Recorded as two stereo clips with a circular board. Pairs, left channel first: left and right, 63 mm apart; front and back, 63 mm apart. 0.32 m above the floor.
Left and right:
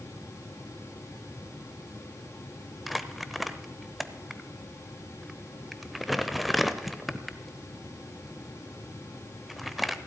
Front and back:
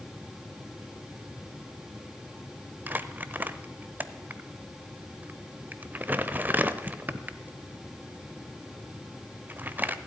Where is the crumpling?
175° left, 0.7 m.